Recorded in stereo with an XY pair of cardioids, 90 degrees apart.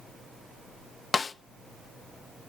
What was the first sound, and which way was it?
A snare drum, 45° left.